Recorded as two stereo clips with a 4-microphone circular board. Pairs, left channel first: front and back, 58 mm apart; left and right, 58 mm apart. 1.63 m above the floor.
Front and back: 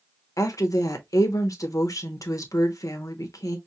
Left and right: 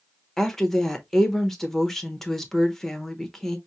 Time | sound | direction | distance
0.4 | a woman speaking | 5° left | 1.2 m